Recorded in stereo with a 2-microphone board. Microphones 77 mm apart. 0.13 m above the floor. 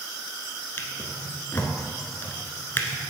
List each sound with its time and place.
0.8 s a drawer: 30° left (ahead or behind), 1.0 m